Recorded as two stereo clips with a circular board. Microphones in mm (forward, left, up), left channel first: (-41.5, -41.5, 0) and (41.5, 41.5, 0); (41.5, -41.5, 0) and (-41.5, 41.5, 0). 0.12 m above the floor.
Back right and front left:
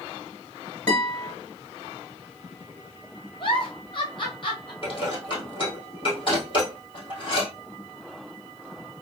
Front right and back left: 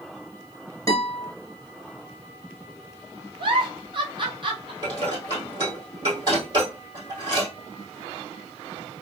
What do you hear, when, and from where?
0.9 s a guitar: 75° right, 1.7 m
3.4 s a giggle: straight behind, 1.0 m
4.8 s dishes clattering: 175° right, 2 m